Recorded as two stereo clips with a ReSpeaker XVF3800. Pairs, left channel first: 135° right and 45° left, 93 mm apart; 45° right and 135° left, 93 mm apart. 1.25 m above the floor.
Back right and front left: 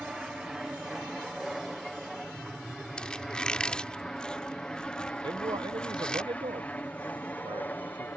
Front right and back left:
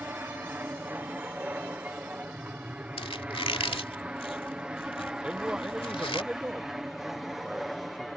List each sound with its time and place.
0.0 s an aircraft: 120° left; by 8.2 s 135° right
3.0 s a squeak: 55° right
5.2 s a man speaking: 55° left